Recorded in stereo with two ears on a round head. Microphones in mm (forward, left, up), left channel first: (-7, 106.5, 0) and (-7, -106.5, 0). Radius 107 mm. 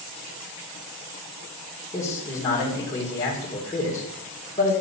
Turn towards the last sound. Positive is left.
turn(degrees=10)  # may be behind; listen again after turning